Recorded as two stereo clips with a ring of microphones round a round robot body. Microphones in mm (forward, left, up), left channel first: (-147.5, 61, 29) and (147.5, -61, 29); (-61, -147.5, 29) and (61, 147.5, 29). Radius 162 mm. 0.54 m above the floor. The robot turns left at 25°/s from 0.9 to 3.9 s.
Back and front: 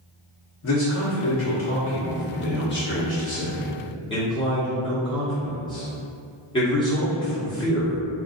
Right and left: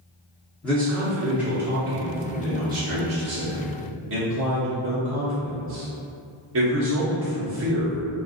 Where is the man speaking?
165° left, 1.0 m; by 8.3 s 90° left, 1.0 m.